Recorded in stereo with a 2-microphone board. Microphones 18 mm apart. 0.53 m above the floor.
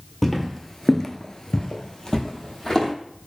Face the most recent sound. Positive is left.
turn(degrees=25)  # may be behind; listen again after turning